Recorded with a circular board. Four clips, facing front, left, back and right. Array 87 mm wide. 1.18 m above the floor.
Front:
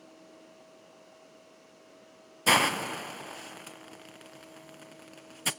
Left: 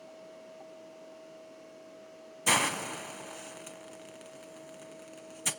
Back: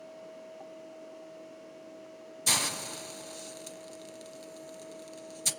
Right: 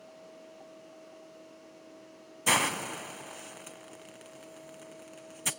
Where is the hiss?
5° right, 0.7 m.